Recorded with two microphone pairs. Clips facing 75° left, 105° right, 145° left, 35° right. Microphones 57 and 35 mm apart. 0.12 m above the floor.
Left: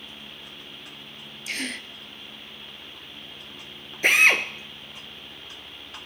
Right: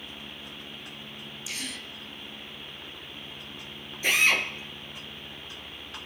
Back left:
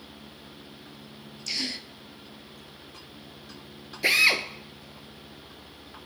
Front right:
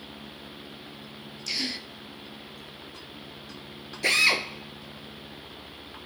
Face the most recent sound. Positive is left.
turn(degrees=70)